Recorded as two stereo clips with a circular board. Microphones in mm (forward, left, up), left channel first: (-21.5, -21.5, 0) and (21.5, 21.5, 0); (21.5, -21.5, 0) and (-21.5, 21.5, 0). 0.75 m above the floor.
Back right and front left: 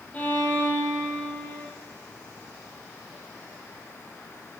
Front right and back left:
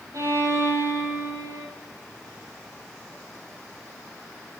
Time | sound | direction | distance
0.1 | a violin | 160° left | 8.5 m